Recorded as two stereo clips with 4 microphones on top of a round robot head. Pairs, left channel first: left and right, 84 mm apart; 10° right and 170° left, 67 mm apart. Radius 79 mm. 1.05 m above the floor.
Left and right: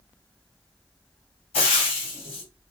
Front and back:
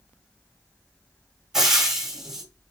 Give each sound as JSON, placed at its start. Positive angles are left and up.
{"t": 1.5, "sound": "frying", "azimuth_deg": 85, "distance_m": 1.3}